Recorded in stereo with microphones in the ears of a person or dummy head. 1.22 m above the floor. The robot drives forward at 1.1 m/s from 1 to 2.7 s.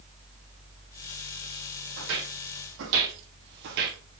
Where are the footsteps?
70° right (ahead or behind), 3.5 m; by 4.0 s 40° right (ahead or behind), 1.5 m.